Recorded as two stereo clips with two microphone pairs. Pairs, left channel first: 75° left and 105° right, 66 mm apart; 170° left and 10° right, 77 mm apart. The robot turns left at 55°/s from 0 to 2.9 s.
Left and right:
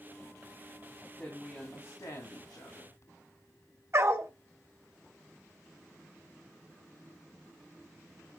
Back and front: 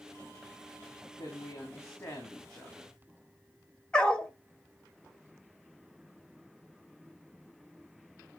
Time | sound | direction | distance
1.2 | a woman speaking | 165° left | 3 m
3.9 | a dog barking | 120° right | 1.3 m